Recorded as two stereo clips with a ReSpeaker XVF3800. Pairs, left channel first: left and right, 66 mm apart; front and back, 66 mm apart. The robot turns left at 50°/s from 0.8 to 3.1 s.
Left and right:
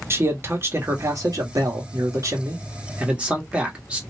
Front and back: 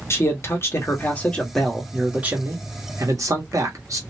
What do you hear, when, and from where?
0.1 s a man speaking: 45° right, 1.1 m; by 4.0 s 160° right, 1.1 m